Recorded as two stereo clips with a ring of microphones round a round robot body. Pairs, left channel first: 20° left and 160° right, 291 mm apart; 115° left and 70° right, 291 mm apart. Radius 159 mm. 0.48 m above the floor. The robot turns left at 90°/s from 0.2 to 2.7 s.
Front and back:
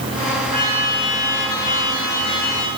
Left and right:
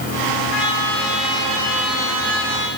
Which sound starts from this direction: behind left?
A trumpet, at 0.5 s.